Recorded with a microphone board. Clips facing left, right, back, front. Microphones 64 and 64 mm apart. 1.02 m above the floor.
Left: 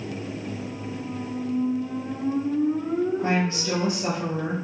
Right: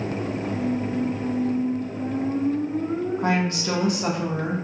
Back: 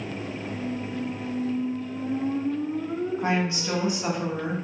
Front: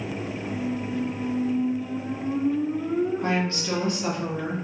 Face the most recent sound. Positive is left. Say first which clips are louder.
# right 1 dB, even
turn(degrees=-105)